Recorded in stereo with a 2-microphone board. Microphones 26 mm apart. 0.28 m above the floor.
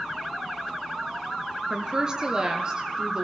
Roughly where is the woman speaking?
Right.